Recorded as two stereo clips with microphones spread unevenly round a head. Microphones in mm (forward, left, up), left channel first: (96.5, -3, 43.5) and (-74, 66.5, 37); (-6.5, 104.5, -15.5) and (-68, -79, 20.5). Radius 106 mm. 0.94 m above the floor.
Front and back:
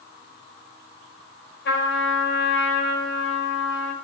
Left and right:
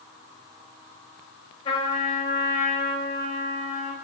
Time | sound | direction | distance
1.6 | a trumpet | straight ahead | 3.5 m